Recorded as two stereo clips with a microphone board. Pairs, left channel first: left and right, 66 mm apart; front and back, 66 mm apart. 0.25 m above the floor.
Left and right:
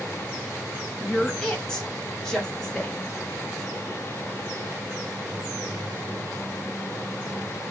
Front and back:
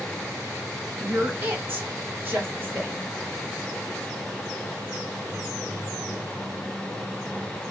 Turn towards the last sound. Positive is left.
turn(degrees=160)